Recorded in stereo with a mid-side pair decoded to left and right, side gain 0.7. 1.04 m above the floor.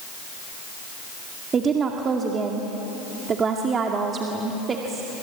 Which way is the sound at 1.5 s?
30° right.